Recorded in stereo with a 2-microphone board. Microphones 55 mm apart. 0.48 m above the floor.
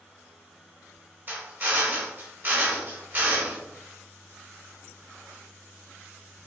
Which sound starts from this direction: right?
A drill, at 1.3 s.